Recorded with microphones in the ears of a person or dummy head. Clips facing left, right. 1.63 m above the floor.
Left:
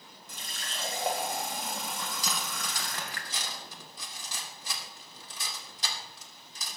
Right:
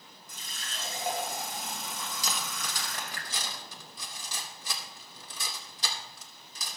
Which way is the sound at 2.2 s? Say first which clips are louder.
Left 1 dB; 75° right (ahead or behind).